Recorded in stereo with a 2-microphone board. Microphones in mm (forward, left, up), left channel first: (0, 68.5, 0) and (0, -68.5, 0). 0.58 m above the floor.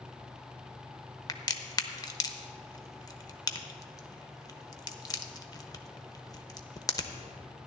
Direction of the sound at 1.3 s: 25° left (ahead or behind).